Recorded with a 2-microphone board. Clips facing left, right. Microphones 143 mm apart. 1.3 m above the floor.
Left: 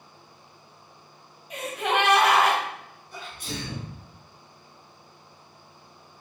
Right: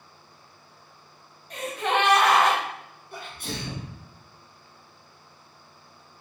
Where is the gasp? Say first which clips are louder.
Even; 5° left (ahead or behind), 1.3 m.